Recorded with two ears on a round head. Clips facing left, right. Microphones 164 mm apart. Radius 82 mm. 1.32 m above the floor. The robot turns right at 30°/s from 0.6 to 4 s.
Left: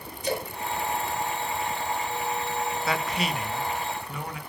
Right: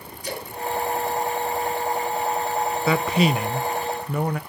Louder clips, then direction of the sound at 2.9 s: Right 11 dB; 75° right.